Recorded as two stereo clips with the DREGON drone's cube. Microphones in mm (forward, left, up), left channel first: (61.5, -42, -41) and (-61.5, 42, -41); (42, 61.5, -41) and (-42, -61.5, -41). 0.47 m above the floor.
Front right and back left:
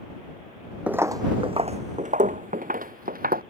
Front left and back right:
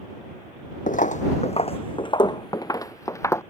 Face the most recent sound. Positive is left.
turn(degrees=130)